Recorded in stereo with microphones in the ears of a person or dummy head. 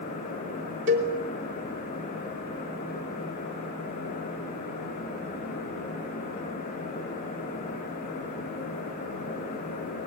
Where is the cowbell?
50° right (ahead or behind), 3.5 m.